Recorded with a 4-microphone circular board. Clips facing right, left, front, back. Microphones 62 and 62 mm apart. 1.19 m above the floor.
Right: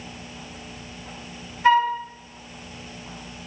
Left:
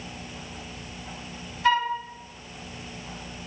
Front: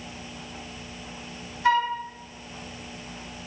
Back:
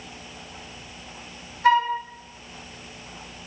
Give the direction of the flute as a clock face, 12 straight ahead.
5 o'clock.